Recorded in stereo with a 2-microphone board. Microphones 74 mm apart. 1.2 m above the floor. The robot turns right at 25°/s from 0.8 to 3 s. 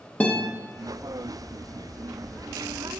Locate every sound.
0.2 s a guitar: 20° left (ahead or behind), 0.7 m